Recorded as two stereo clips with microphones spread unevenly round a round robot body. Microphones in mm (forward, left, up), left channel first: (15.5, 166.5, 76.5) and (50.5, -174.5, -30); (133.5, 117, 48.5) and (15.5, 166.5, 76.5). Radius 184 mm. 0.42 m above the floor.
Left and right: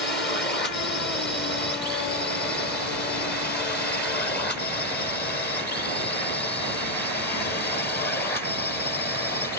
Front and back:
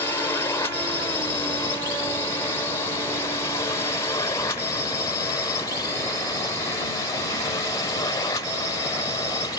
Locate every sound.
0.0 s a drone: 25° left